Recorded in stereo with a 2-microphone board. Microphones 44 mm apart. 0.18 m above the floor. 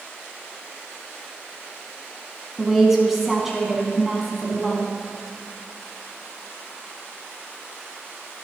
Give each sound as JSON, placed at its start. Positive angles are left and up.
{"t": 2.6, "sound": "a woman speaking", "side_deg": -5, "distance_m": 1.5}